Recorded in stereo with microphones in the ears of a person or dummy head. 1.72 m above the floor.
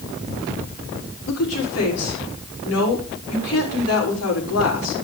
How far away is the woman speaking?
About 6.5 m.